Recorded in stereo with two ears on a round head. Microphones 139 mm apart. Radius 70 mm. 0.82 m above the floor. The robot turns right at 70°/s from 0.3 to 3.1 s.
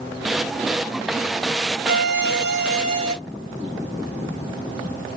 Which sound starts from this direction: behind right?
A violin, at 1.9 s.